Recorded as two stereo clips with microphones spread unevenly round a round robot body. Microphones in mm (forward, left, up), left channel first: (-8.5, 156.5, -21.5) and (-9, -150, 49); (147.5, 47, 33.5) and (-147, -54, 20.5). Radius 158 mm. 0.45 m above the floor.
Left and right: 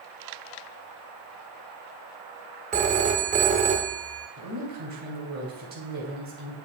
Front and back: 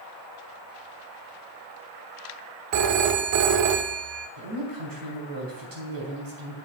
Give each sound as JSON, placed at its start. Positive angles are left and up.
{"t": 2.7, "sound": "a phone ringing", "azimuth_deg": -165, "distance_m": 0.8}
{"t": 4.4, "sound": "a woman speaking", "azimuth_deg": -155, "distance_m": 3.5}